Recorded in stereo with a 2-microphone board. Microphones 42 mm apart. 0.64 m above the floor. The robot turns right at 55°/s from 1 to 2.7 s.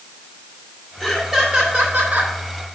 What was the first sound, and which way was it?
Laughter, 175° left.